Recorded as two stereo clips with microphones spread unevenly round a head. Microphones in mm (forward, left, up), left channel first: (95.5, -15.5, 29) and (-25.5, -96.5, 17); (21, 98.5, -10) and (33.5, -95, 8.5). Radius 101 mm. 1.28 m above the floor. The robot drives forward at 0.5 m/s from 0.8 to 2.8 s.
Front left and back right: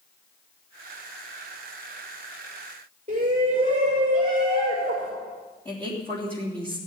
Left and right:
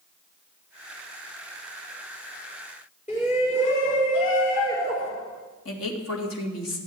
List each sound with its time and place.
3.1 s a shout: 155° left, 5 m
5.7 s a woman speaking: 115° left, 3 m